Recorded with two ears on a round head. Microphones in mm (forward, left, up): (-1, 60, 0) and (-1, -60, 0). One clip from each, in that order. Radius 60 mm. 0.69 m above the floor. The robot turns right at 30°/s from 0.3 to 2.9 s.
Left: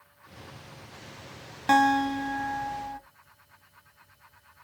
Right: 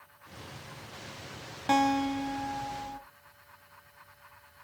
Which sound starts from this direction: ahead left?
A guitar, at 1.7 s.